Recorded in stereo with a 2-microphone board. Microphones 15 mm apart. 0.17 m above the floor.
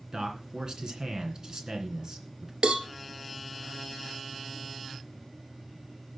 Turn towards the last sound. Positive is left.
turn(degrees=-75)  # may be behind; listen again after turning